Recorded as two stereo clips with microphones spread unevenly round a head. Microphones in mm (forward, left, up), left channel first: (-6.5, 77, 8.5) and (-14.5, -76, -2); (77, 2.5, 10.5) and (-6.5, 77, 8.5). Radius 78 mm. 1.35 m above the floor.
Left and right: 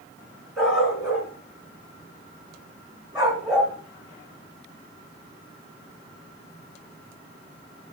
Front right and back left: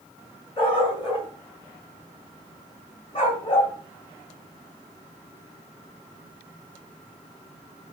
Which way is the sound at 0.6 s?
5° right.